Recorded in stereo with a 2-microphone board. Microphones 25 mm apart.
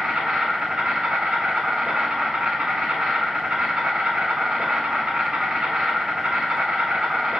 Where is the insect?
50° right (ahead or behind), 1.1 m.